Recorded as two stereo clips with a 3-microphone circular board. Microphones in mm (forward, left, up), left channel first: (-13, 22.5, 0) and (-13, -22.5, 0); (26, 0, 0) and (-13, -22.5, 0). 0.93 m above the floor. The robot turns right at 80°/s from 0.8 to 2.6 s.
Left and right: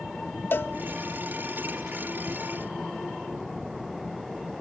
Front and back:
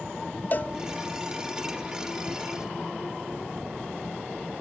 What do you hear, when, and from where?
0.5 s a cowbell: 65° left, 1.0 m